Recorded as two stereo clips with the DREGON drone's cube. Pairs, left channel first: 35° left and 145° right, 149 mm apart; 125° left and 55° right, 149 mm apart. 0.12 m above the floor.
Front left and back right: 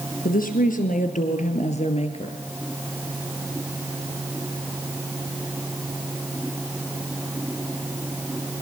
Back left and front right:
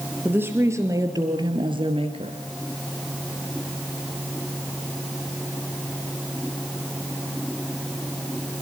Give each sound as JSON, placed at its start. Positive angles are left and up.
{"t": 0.2, "sound": "a woman speaking", "azimuth_deg": 20, "distance_m": 4.0}